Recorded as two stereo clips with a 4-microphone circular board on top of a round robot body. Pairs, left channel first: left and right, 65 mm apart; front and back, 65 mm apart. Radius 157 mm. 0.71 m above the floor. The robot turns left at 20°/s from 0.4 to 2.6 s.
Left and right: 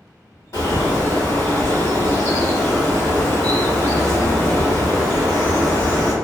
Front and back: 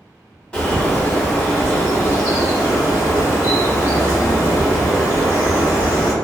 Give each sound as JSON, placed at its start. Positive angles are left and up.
{"t": 0.5, "sound": "a bird", "azimuth_deg": 75, "distance_m": 1.6}